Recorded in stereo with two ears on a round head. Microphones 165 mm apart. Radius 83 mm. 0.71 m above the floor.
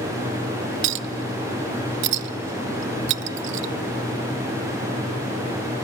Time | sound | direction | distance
0.8 | a clink | 70° right (ahead or behind) | 0.5 m